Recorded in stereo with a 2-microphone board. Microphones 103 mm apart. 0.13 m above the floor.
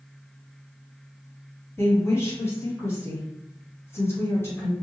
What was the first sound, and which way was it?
A woman speaking, 25° left (ahead or behind).